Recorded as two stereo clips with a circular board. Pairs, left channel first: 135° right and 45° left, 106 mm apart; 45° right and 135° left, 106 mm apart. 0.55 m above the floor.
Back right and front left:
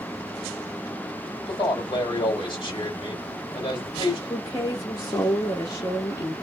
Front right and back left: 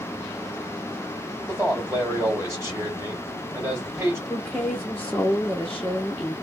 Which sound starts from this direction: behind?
A man speaking, at 1.5 s.